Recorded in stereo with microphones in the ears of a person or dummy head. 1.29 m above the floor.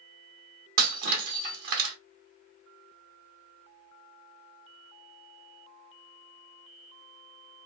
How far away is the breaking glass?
About 1.0 m.